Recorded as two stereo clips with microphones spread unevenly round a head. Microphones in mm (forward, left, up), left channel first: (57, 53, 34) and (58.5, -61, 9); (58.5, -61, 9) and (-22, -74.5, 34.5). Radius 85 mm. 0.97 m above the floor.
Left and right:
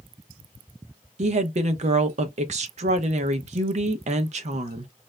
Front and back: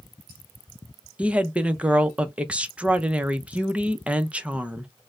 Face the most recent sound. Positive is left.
turn(degrees=-90)